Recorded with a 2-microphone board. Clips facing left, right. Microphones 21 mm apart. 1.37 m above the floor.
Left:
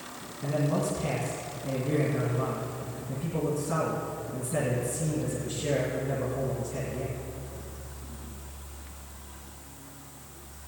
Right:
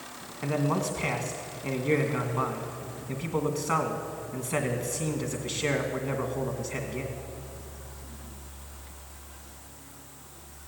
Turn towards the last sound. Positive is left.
turn(degrees=-80)